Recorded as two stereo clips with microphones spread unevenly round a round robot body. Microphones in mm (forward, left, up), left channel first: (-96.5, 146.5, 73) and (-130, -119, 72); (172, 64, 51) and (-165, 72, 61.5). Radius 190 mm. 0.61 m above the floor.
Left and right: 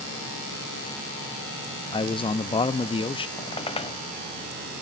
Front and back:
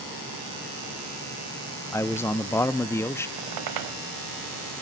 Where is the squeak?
155° left, 1.0 m.